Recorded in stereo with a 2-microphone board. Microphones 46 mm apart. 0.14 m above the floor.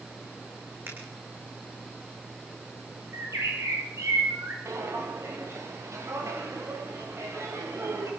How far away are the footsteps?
About 9 m.